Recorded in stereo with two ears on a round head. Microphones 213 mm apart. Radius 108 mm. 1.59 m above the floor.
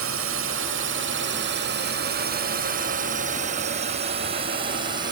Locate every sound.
0.0 s a drone: 60° right (ahead or behind); by 5.1 s 20° right (ahead or behind)